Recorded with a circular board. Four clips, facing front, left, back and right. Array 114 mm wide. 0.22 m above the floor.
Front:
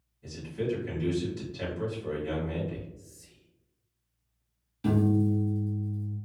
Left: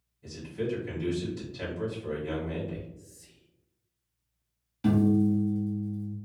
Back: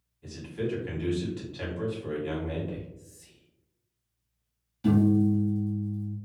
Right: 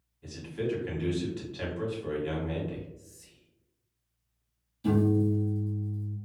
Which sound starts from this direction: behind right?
A man speaking, at 0.2 s.